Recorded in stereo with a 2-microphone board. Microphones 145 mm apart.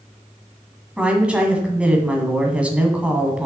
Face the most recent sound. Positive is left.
turn(degrees=-10)  # may be behind; listen again after turning